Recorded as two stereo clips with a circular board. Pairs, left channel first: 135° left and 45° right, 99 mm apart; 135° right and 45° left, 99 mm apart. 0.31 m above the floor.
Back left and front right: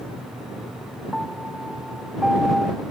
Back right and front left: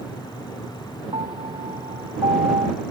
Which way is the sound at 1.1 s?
40° left.